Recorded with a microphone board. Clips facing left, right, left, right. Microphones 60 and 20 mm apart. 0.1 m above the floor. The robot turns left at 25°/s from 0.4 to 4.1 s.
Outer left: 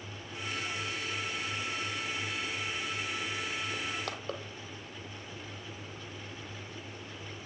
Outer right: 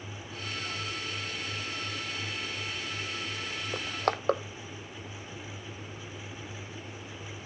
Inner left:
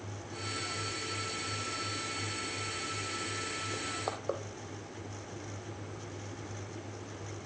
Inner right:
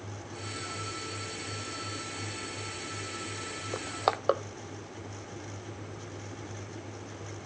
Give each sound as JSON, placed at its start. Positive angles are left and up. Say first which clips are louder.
{"t": 3.7, "sound": "crushing", "louder": "outer right 6 dB, inner right 6 dB", "side_deg": -60, "distance_m": 0.7}